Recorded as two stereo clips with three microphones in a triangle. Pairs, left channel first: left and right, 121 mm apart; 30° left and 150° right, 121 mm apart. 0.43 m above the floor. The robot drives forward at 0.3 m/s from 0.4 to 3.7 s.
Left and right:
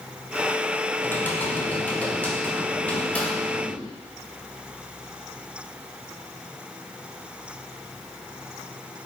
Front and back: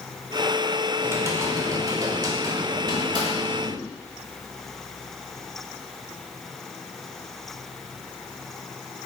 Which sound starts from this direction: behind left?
Typing on a keyboard, at 1.0 s.